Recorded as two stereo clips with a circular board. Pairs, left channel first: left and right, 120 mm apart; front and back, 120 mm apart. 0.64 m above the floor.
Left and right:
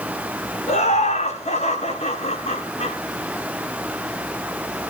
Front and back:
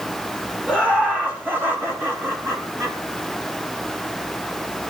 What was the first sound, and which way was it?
Laughter, 100° left.